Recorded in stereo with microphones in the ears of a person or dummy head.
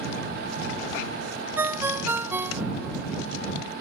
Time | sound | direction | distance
1.6 | a ringtone | 10° right (ahead or behind) | ?